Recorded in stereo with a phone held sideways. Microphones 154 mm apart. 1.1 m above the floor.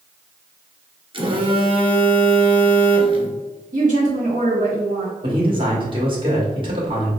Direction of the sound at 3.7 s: 60° right (ahead or behind).